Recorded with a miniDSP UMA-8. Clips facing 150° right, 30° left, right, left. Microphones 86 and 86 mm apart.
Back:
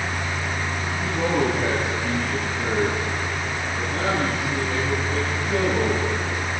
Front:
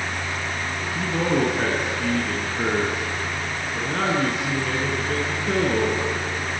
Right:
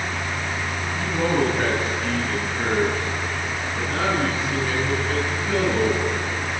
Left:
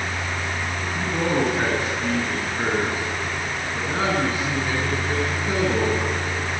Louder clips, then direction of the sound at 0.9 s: Front 1 dB, right 1 dB; 10° left.